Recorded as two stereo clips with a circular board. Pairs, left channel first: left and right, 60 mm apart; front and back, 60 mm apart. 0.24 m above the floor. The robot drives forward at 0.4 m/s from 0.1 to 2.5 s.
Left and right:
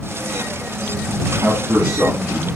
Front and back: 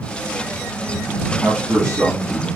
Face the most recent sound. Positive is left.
turn(degrees=180)